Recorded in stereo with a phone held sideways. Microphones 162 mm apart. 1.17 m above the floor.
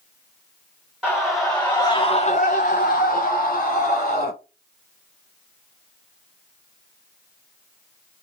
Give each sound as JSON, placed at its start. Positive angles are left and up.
{"t": 1.0, "sound": "a scream", "side_deg": -5, "distance_m": 1.6}